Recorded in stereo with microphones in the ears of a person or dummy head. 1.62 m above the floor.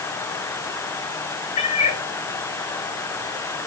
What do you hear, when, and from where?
1.6 s a cat meowing: 35° left (ahead or behind), 2.5 m